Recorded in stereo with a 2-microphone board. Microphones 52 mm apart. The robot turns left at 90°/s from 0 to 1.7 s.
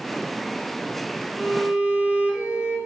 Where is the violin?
Centre (ahead or behind), 0.9 m; by 2.8 s 10° right (ahead or behind), 0.9 m.